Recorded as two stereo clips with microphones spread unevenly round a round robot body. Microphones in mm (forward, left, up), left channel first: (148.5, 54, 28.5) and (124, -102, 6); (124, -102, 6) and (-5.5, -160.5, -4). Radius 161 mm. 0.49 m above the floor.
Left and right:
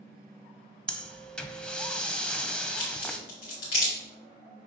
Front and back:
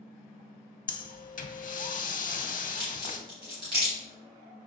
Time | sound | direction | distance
0.9 | breathing | straight ahead | 0.7 m
2.8 | a crack | 130° left | 2.0 m